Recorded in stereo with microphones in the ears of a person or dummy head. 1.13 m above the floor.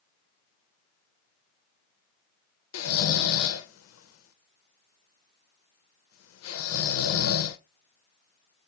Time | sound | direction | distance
2.7 | snoring | 85° left | 0.5 m